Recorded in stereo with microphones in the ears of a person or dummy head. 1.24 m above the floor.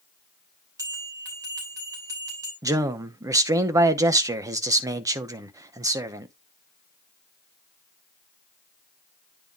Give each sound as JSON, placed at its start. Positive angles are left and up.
{"t": 0.8, "sound": "a bell", "side_deg": -25, "distance_m": 3.0}
{"t": 2.6, "sound": "a man speaking", "side_deg": -20, "distance_m": 0.7}